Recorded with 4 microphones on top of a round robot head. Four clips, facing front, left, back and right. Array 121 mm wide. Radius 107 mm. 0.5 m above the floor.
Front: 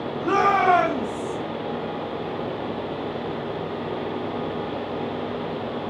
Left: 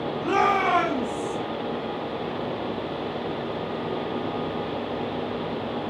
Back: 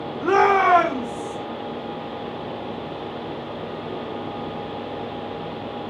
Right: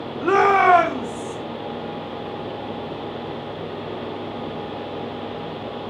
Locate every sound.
0.2 s a shout: 140° right, 2.5 m; by 1.4 s 135° right, 3.5 m